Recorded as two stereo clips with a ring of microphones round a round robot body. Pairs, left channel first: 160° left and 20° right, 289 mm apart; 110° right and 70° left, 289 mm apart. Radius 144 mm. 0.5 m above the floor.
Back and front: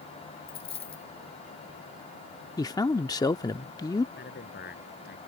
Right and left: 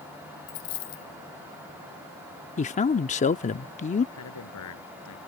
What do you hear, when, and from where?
0.5 s a dropped coin: 130° right
2.6 s a man speaking: 140° right
4.2 s a man speaking: 145° right